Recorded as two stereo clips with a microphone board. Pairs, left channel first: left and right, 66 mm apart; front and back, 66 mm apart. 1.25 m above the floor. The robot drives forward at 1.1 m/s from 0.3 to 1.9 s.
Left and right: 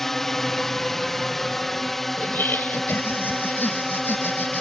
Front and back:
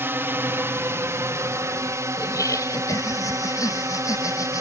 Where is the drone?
170° left; by 4.6 s 175° left.